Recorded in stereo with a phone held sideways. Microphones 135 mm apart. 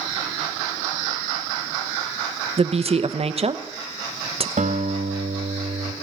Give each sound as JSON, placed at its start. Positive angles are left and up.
{"t": 2.6, "sound": "a woman speaking", "side_deg": -50, "distance_m": 0.8}
{"t": 4.6, "sound": "a guitar", "side_deg": -70, "distance_m": 2.5}